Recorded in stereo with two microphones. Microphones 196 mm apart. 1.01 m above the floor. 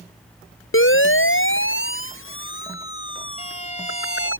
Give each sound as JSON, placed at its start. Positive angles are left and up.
{"t": 0.7, "sound": "a siren", "side_deg": 75}
{"t": 3.4, "sound": "a violin", "side_deg": 35}